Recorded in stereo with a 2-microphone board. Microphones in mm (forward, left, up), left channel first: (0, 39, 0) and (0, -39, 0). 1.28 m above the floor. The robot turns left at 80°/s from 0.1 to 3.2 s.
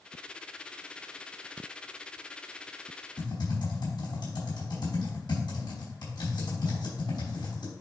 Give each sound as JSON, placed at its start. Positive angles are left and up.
{"t": 3.2, "sound": "typing on a keyboard", "side_deg": 75, "distance_m": 4.0}